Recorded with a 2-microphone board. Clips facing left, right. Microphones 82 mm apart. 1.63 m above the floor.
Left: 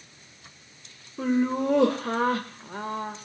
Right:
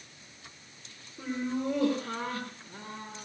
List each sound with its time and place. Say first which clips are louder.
1.2 s laughter: left 8 dB; 75° left (ahead or behind), 1.7 m